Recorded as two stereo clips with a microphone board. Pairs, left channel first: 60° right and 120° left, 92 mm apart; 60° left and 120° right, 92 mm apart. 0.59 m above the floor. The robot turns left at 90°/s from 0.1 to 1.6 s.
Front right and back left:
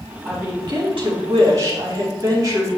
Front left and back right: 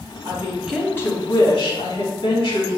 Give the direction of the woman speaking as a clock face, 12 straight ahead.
6 o'clock.